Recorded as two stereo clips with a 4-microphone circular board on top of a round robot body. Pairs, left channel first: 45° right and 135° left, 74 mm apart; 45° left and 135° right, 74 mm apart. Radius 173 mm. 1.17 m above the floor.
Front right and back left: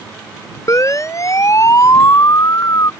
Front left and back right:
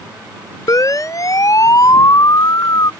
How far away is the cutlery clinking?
I don't hear cutlery clinking.